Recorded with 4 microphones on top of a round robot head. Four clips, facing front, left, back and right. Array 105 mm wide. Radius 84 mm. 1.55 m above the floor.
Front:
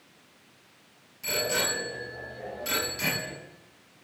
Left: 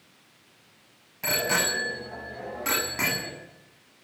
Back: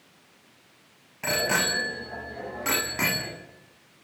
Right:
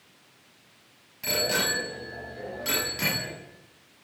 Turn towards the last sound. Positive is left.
turn(degrees=145)